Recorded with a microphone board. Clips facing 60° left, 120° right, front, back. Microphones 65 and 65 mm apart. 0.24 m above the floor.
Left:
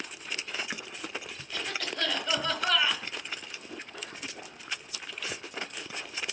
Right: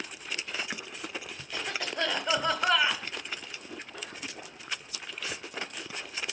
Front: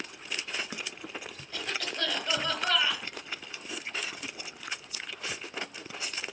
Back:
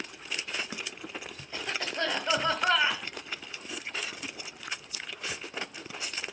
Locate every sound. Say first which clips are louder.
1.5 s a cough: right 1 dB, back 2 dB; 160° right, 1.4 m